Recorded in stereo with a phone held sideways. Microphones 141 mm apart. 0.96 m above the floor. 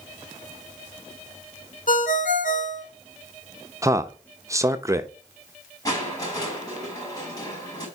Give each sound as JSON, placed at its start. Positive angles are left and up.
{"t": 1.9, "sound": "a ringtone", "side_deg": 70, "distance_m": 1.6}
{"t": 3.8, "sound": "a man speaking", "side_deg": -20, "distance_m": 0.8}
{"t": 5.8, "sound": "crushing", "side_deg": 25, "distance_m": 5.0}